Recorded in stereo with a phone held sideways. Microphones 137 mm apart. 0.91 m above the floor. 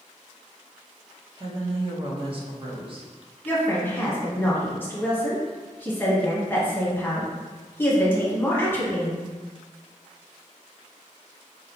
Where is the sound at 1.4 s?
40° right (ahead or behind), 0.7 m.